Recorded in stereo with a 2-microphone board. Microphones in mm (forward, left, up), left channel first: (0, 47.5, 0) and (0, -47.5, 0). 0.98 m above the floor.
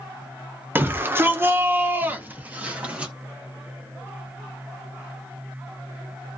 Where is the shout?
20° right (ahead or behind), 0.9 m; by 3.1 s 10° right (ahead or behind), 1.2 m.